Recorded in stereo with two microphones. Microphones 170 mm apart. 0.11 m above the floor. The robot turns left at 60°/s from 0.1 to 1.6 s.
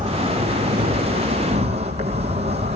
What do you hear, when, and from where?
0.0 s an insect: 50° right, 5 m; by 2.8 s 140° right, 5 m